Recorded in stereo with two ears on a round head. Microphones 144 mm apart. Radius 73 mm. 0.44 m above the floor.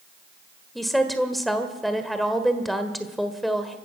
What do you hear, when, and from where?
0.8 s a woman speaking: centre (ahead or behind), 1.5 m